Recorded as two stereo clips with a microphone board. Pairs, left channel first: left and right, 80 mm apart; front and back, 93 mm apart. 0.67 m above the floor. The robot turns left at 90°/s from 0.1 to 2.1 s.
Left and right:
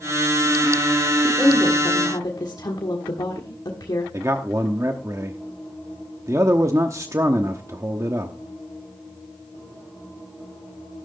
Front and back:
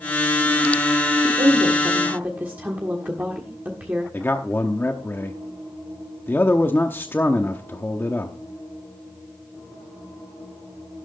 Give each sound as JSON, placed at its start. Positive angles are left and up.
{"t": 1.2, "sound": "a woman speaking", "azimuth_deg": -170, "distance_m": 1.5}
{"t": 4.1, "sound": "a man speaking", "azimuth_deg": -55, "distance_m": 0.9}